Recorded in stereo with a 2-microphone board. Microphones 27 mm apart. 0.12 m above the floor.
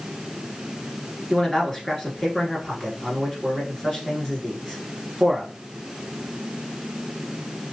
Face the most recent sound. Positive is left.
turn(degrees=15)  # may be behind; listen again after turning